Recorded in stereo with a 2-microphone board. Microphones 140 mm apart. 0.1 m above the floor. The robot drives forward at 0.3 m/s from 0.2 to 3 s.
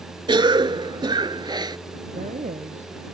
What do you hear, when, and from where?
0.3 s a cough: 35° right (ahead or behind); by 1.8 s 30° right (ahead or behind)
2.1 s a man speaking: 60° right (ahead or behind)